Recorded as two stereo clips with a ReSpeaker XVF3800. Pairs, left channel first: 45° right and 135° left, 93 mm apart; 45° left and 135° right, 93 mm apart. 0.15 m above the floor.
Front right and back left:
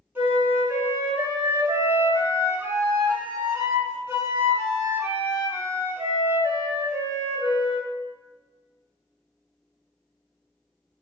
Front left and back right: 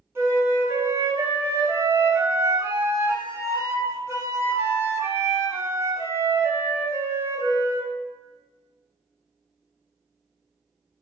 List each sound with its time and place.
0.1 s a flute: 175° right, 1.3 m